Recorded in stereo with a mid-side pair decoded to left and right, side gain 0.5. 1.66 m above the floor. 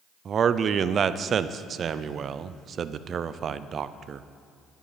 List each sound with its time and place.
0.2 s a man speaking: 45° right, 0.6 m